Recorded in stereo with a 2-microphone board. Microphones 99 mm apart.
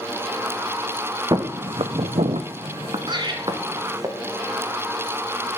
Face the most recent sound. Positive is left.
turn(degrees=-45)  # may be behind; listen again after turning